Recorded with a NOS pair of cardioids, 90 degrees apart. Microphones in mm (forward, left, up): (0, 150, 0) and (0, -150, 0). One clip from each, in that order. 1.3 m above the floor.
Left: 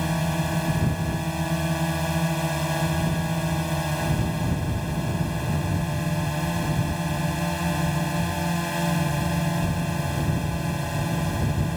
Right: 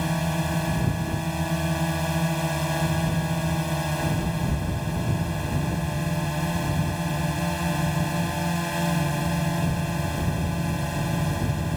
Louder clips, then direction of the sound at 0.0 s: Even; 5° right.